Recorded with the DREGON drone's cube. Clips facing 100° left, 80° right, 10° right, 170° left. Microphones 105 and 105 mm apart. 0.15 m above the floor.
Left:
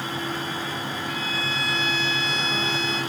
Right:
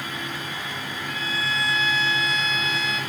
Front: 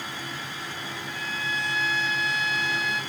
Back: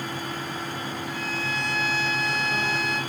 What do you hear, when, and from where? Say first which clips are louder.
1.1 s a violin: even, front 1 dB; 160° left, 3 m